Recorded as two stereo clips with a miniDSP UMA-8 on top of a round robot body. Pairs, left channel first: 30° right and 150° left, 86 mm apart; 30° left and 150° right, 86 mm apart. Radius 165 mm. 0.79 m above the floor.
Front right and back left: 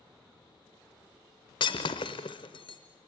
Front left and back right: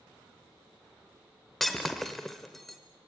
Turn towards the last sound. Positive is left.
turn(degrees=-55)